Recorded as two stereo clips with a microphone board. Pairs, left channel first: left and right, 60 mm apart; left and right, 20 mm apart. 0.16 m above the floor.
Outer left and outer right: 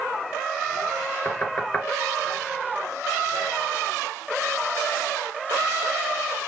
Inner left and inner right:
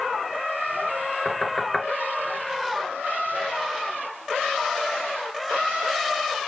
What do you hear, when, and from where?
1.2 s knocking: 30° left (ahead or behind), 2 m